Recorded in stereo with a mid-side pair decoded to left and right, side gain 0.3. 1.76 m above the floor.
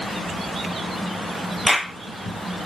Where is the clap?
Straight ahead, 0.9 m.